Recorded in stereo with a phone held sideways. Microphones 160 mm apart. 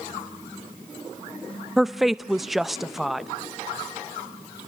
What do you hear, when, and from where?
1.8 s a woman speaking: centre (ahead or behind), 0.6 m